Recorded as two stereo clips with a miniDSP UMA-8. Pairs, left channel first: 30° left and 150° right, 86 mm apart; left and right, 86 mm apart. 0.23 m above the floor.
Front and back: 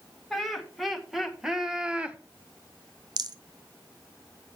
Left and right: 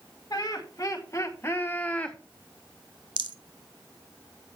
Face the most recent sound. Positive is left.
turn(degrees=-110)